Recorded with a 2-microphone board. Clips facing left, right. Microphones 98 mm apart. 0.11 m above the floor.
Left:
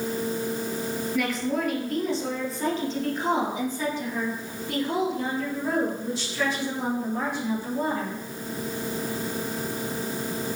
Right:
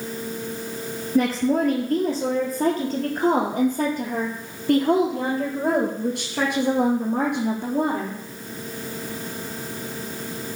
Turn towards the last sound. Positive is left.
turn(degrees=-70)  # may be behind; listen again after turning